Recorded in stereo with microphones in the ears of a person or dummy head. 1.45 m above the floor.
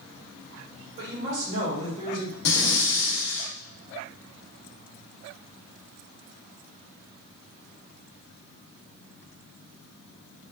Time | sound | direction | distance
1.0 | a woman speaking | 65° right (ahead or behind) | 1.7 m
2.5 | breathing | 60° left (ahead or behind) | 0.8 m